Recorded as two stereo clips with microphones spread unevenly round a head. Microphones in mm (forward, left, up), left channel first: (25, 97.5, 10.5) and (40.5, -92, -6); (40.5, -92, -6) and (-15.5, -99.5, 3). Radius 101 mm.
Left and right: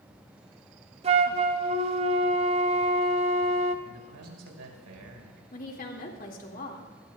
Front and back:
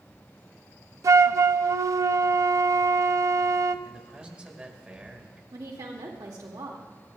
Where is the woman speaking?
145° left, 2 m.